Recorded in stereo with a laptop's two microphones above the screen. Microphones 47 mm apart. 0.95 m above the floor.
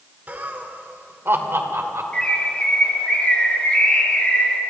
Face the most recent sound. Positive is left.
turn(degrees=25)  # may be behind; listen again after turning